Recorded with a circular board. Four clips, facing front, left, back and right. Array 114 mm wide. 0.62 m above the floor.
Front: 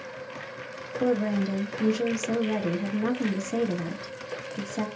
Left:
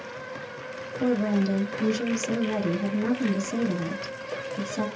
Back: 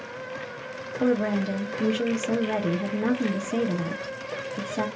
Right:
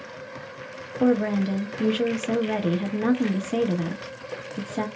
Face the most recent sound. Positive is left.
turn(degrees=-110)